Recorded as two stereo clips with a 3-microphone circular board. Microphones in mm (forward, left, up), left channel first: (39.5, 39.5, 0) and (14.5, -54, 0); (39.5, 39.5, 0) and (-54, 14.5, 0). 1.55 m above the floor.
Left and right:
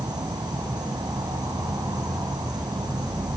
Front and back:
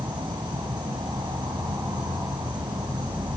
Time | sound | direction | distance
0.0 | an insect | 140° right | 2.5 m